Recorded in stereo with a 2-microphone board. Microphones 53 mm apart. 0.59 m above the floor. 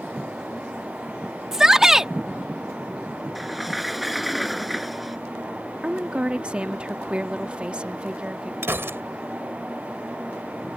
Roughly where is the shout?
Centre.